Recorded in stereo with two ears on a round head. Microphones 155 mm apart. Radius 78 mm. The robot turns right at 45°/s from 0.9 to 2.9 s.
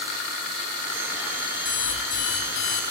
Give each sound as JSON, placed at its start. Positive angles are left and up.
{"t": 1.6, "sound": "an alarm clock", "azimuth_deg": 0, "distance_m": 7.0}